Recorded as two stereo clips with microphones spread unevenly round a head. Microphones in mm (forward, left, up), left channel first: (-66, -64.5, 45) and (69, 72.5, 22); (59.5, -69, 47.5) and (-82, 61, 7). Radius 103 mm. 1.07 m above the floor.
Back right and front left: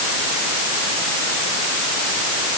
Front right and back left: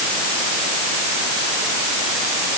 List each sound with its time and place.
Only background noise.